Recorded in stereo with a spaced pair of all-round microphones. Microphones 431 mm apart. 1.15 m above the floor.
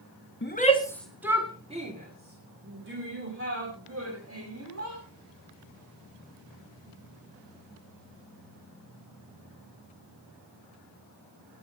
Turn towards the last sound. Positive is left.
turn(degrees=-35)  # may be behind; listen again after turning